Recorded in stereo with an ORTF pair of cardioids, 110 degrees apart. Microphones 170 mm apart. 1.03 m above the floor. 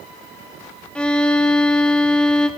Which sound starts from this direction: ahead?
A violin, at 0.9 s.